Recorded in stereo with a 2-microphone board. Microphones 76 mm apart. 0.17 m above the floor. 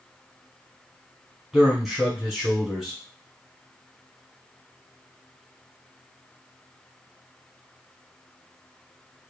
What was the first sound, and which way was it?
A man speaking, 5° right (ahead or behind).